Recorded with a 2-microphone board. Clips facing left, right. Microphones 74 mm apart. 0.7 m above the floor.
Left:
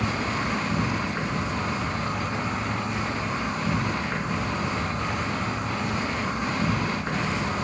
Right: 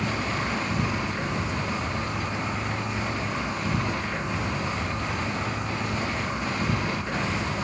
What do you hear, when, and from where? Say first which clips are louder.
0.0 s an insect: left 1 dB; 50° left (ahead or behind), 3 m